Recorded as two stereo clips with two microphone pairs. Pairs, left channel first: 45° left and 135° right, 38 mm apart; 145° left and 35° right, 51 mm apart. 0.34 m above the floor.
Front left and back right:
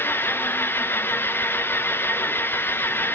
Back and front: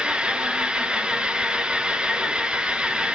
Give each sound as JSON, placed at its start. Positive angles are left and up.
{"t": 0.0, "sound": "an engine running", "azimuth_deg": 40, "distance_m": 1.2}